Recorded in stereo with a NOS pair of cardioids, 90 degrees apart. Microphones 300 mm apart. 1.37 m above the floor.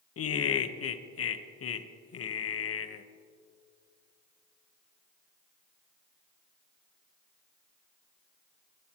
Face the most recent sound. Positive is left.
turn(degrees=50)